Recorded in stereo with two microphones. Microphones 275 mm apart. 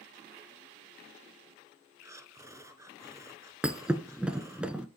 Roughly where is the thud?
Centre.